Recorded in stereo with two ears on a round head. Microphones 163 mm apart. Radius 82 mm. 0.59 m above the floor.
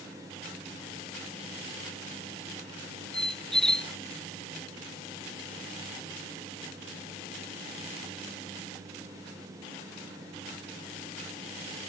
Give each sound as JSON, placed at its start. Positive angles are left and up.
{"t": 3.1, "sound": "a squeak", "side_deg": 5}